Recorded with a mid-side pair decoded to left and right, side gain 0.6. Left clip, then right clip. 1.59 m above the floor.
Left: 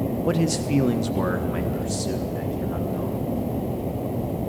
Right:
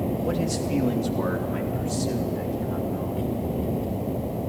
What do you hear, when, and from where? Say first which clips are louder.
0.2 s a man speaking: left 6 dB; 30° left, 1.1 m; by 3.2 s 20° left, 2.5 m